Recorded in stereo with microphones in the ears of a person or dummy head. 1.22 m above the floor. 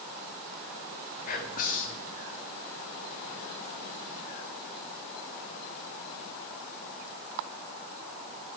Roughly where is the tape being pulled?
I don't hear tape being pulled.